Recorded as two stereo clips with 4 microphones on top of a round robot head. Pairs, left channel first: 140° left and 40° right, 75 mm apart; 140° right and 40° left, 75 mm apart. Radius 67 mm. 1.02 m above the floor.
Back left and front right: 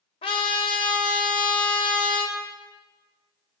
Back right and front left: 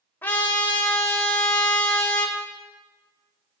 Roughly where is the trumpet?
Behind left.